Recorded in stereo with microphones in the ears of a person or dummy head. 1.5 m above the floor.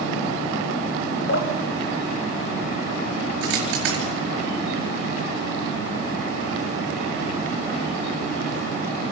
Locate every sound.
1.3 s dripping: 75° left (ahead or behind), 1.5 m
3.4 s a dropped coin: 70° right (ahead or behind), 5 m